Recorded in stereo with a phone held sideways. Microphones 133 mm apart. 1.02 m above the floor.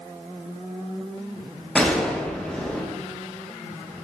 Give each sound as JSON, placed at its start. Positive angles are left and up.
{"t": 1.8, "sound": "a gunshot", "side_deg": 5, "distance_m": 0.5}